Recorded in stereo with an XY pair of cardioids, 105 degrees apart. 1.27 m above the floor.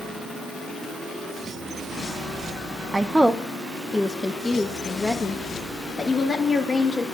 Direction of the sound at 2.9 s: 25° right.